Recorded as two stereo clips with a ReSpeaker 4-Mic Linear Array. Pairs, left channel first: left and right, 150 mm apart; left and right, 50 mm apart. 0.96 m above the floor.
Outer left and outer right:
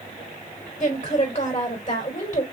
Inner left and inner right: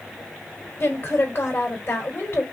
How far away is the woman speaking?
About 3 m.